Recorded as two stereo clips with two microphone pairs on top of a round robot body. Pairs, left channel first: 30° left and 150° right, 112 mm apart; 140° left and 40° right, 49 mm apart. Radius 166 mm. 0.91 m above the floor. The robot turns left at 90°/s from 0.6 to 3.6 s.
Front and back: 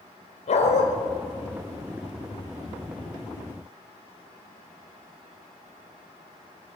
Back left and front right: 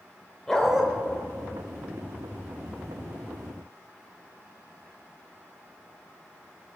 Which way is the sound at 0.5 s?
55° left.